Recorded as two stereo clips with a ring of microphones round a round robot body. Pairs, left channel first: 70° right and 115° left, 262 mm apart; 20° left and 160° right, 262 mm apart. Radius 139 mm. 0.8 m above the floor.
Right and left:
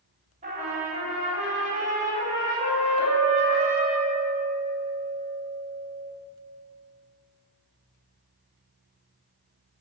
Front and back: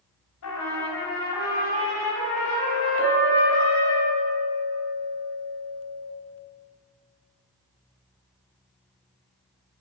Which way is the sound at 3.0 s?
160° left.